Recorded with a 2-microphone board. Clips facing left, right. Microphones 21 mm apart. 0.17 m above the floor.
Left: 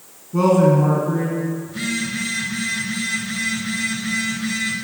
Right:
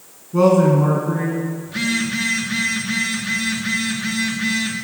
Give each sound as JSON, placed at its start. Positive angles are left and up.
{"t": 0.3, "sound": "a man speaking", "side_deg": -5, "distance_m": 2.0}
{"t": 1.6, "sound": "a phone buzzing", "side_deg": -70, "distance_m": 3.5}